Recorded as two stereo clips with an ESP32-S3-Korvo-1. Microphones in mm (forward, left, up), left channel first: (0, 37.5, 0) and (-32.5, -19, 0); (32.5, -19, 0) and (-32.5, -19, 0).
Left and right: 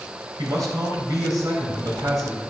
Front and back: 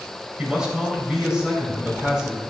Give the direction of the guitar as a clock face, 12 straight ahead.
No guitar in this recording.